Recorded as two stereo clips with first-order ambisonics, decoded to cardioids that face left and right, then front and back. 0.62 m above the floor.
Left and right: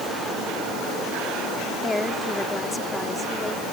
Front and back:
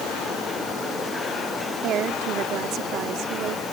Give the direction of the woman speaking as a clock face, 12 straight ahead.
7 o'clock.